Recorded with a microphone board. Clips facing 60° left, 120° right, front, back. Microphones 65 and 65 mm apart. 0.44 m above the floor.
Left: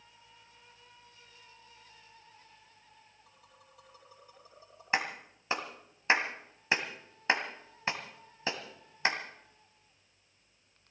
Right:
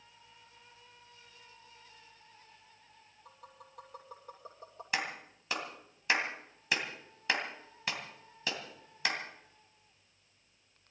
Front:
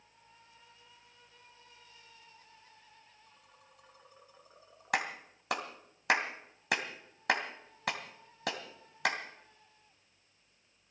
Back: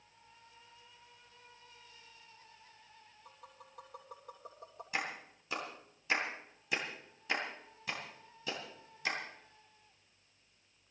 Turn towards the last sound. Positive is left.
turn(degrees=0)